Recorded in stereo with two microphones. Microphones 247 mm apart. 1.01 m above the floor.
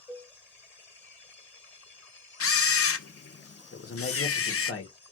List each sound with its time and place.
0.1 s a cowbell: 10° left (ahead or behind), 0.9 m
2.4 s a camera shutter: 65° left (ahead or behind), 0.5 m
3.7 s a man speaking: 60° left (ahead or behind), 1.0 m